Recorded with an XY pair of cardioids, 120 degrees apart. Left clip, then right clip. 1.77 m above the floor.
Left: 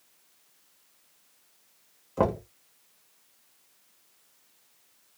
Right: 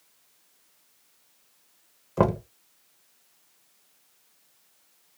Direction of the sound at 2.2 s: 30° right.